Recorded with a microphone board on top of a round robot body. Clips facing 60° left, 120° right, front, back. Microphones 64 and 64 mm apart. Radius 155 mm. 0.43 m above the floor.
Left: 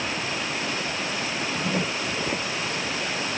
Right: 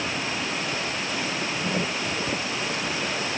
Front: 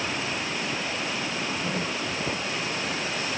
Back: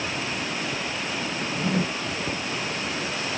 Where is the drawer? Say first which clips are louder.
Left 2 dB, back 3 dB; 140° left.